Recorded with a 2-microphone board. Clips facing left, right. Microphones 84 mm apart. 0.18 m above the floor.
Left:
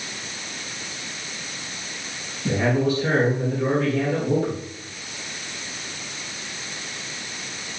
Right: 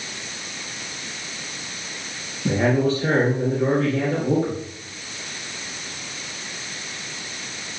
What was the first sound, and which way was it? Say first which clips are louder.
A man speaking: right 2 dB; 40° right (ahead or behind).